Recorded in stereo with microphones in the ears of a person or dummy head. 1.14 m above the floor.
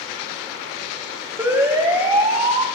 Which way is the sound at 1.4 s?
20° right (ahead or behind).